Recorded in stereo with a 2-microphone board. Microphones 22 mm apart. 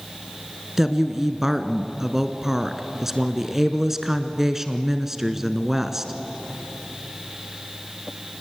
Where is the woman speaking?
15° right (ahead or behind), 1.1 m.